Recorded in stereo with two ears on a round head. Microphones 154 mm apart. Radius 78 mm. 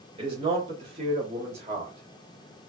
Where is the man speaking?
30° right (ahead or behind), 1.6 m; by 2.6 s 35° right (ahead or behind), 1.5 m.